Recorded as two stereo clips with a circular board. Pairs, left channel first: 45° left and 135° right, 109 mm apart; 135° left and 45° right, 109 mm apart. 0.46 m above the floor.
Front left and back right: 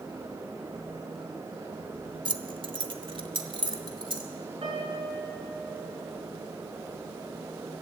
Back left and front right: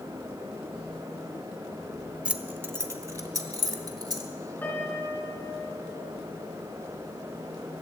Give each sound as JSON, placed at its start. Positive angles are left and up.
{"t": 2.2, "sound": "keys jangling", "azimuth_deg": -120, "distance_m": 0.7}
{"t": 4.6, "sound": "a piano", "azimuth_deg": -155, "distance_m": 5.5}